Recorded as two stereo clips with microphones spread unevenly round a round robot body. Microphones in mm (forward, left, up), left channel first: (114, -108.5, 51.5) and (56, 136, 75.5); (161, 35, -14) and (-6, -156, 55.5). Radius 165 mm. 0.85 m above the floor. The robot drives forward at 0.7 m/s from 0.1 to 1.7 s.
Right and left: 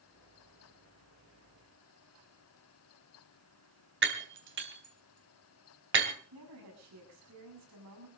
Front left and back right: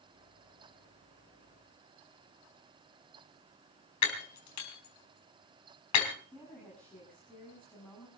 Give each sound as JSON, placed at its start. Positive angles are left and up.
{"t": 4.0, "sound": "breaking glass", "azimuth_deg": 65, "distance_m": 4.0}
{"t": 6.3, "sound": "a woman speaking", "azimuth_deg": 135, "distance_m": 8.0}